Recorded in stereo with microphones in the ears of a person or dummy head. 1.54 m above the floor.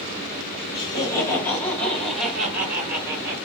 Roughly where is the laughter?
Left.